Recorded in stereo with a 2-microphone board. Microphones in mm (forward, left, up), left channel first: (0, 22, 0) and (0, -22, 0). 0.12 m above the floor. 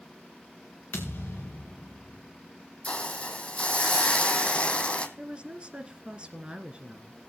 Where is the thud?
50° left (ahead or behind), 3 m.